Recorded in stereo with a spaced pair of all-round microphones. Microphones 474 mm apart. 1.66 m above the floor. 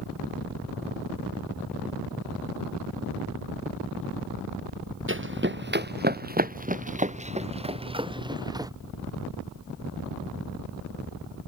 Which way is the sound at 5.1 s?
25° right (ahead or behind).